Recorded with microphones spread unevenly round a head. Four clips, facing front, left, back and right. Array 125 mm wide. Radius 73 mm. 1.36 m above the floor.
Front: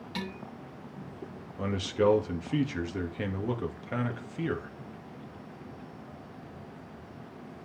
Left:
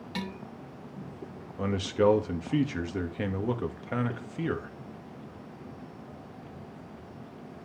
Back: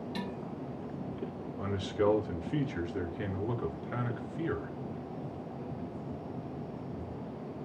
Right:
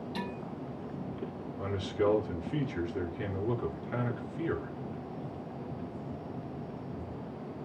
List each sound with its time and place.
0.1 s dishes clattering: 110° left, 5 m
1.6 s a man speaking: 70° left, 2.5 m